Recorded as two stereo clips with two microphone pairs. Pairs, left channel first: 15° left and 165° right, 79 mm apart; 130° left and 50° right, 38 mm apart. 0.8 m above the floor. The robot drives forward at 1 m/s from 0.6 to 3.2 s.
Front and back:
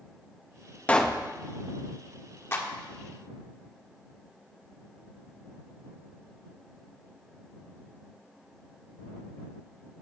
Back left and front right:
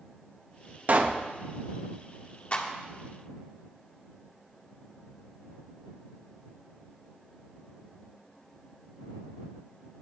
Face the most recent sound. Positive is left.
turn(degrees=105)